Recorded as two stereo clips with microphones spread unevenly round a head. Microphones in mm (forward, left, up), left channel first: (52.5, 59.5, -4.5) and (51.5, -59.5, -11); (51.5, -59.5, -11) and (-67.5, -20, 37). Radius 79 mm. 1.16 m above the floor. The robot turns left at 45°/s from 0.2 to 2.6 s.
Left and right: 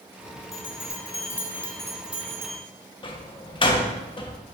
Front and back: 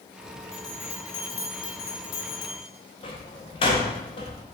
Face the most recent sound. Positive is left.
turn(degrees=40)